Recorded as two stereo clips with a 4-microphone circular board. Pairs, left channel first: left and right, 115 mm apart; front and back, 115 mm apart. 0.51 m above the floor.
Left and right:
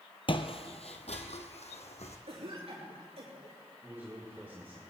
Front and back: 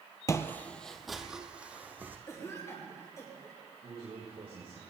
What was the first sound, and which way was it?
Footsteps, 60° left.